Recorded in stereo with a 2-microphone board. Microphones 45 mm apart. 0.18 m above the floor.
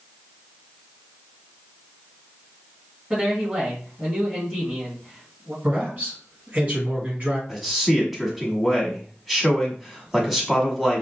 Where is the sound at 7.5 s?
5° right (ahead or behind), 1.0 m.